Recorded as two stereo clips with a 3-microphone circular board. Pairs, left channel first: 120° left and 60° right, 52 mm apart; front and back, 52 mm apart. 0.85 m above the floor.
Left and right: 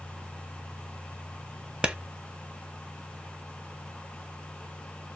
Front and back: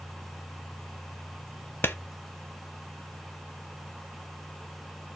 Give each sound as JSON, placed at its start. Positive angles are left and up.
{"t": 1.8, "sound": "a clap", "azimuth_deg": 0, "distance_m": 0.5}